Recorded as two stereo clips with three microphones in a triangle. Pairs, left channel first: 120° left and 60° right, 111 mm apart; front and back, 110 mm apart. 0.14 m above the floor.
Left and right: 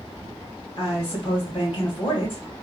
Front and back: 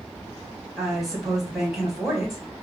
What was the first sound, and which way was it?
A woman speaking, 95° left.